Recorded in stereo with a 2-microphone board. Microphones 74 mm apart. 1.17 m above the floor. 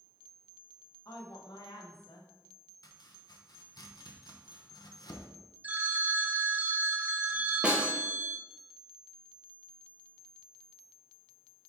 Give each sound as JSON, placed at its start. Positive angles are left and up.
{"t": 1.1, "sound": "a woman speaking", "side_deg": 60, "distance_m": 1.6}
{"t": 2.8, "sound": "chopping", "side_deg": 60, "distance_m": 0.9}
{"t": 5.6, "sound": "a phone ringing", "side_deg": -20, "distance_m": 0.8}
{"t": 7.6, "sound": "a snare drum", "side_deg": -15, "distance_m": 1.1}